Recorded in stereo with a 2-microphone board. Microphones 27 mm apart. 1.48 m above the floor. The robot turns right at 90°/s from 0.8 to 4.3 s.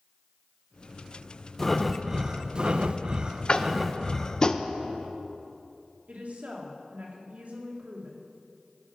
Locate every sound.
1.6 s breathing: 155° left, 0.6 m; by 4.5 s 40° left, 0.6 m
3.5 s tapping: 30° left (ahead or behind), 0.6 m
6.1 s a woman speaking: 70° right (ahead or behind), 2.5 m